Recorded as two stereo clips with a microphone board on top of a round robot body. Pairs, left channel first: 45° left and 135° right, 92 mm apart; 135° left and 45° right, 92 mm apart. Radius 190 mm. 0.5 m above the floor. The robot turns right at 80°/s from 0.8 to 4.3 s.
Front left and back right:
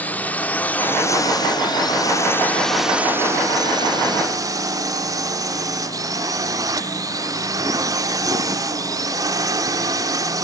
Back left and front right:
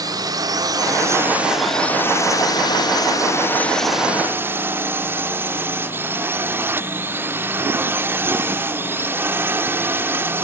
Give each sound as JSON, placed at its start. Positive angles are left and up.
{"t": 0.0, "sound": "a drone", "azimuth_deg": -20}